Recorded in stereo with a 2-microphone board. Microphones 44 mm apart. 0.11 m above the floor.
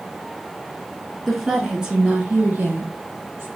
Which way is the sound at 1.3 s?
Centre (ahead or behind).